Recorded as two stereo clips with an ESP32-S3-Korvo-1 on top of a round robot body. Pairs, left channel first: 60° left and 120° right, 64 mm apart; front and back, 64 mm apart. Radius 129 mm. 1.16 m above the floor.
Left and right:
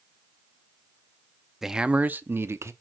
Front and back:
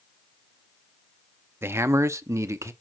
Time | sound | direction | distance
1.6 | a man speaking | 155° left | 0.7 m